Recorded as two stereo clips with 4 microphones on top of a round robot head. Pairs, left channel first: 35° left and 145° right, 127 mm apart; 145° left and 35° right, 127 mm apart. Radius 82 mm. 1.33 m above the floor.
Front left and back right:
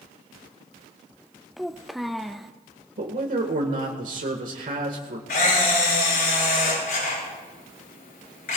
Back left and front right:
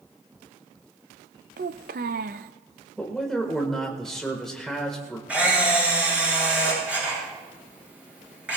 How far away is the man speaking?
About 1.7 m.